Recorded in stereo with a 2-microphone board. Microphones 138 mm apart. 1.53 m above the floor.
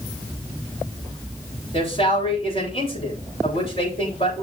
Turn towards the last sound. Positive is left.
turn(degrees=45)  # may be behind; listen again after turning